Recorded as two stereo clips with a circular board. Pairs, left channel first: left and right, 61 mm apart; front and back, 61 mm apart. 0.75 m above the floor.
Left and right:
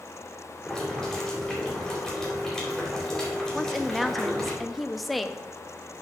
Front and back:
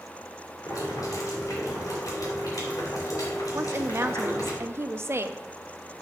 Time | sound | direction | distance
0.7 | boiling | 10° left | 3.5 m
3.5 | a woman speaking | straight behind | 0.6 m